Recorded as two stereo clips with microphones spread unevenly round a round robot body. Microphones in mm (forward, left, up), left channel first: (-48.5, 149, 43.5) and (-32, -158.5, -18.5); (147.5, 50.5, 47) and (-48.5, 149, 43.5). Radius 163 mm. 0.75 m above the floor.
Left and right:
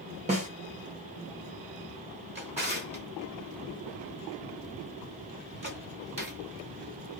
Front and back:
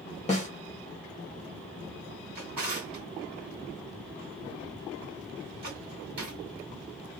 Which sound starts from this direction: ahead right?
A snare drum, at 0.3 s.